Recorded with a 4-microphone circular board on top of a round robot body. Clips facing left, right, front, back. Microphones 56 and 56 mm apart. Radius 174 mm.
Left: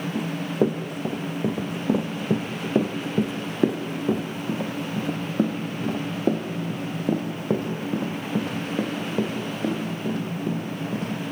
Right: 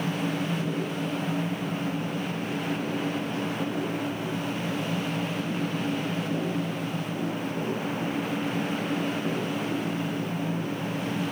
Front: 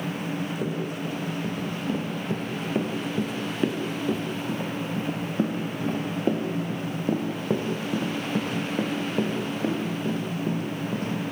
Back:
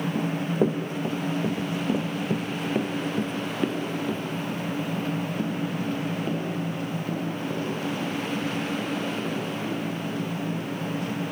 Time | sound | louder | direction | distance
0.1 | running footsteps | left 5 dB, back 5 dB | 130° left | 2.0 m